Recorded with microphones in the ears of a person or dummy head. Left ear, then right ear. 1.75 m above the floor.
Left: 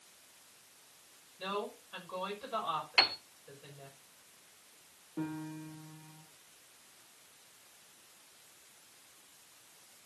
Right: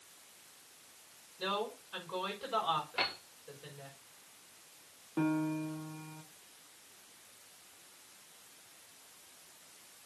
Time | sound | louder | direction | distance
1.4 | a woman speaking | right 2 dB | 10° right (ahead or behind) | 6 m
3.0 | a piano | left 7 dB | 80° left | 1.7 m
5.2 | a piano | right 8 dB | 60° right (ahead or behind) | 2.0 m